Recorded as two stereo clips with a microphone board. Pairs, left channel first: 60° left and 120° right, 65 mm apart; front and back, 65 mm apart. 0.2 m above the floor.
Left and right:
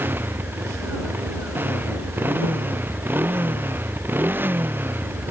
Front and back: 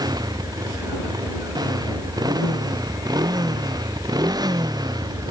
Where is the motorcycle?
Straight behind.